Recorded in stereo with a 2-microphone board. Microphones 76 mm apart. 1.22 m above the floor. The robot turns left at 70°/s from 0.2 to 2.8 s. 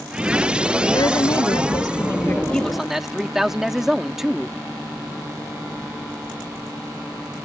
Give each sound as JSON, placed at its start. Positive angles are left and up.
{"t": 0.9, "sound": "a woman speaking", "azimuth_deg": 125}
{"t": 2.5, "sound": "a man speaking", "side_deg": 10}